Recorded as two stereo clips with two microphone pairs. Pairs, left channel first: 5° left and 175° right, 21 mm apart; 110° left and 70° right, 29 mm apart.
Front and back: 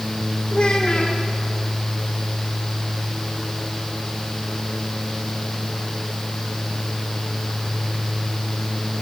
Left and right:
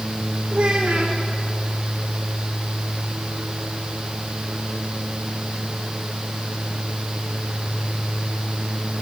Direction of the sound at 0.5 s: 25° right.